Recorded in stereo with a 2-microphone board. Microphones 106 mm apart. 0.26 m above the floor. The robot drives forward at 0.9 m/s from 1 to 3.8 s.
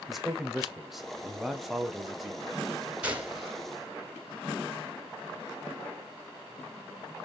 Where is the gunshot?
15° right (ahead or behind), 1.5 m; by 3.6 s 10° right (ahead or behind), 1.8 m.